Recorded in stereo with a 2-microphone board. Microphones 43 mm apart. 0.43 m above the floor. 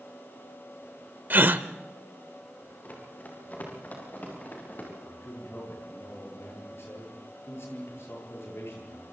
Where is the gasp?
50° right (ahead or behind), 0.8 m.